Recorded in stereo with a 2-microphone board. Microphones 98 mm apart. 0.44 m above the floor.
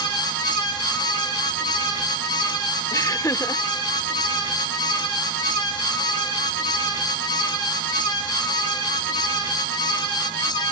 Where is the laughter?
35° left (ahead or behind), 0.9 m.